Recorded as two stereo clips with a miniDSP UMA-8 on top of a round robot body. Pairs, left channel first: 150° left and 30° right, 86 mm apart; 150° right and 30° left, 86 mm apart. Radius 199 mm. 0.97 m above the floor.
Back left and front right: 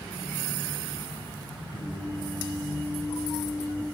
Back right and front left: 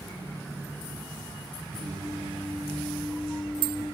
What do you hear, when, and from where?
1.7 s singing: 110° left, 5.5 m